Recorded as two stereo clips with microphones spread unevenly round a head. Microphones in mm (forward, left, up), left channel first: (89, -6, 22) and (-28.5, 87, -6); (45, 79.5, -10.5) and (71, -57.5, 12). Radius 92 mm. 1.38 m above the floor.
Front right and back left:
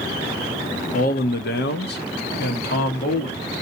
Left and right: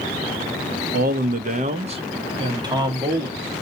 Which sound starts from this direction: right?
A man speaking, at 0.9 s.